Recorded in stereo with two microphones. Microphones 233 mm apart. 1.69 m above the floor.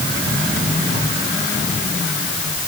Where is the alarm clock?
I don't hear an alarm clock.